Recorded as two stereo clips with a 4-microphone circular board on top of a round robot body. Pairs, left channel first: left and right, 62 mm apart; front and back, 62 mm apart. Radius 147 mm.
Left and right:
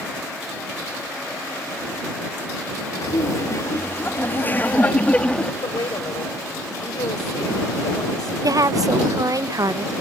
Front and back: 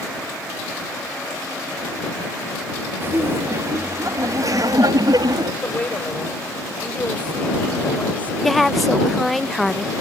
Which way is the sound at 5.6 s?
70° left.